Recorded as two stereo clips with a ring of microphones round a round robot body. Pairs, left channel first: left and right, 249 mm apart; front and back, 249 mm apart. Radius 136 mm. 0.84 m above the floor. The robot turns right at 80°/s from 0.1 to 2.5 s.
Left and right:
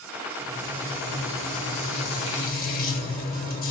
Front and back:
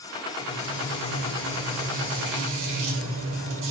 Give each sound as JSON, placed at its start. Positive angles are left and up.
{"t": 0.4, "sound": "frying", "azimuth_deg": -25, "distance_m": 1.2}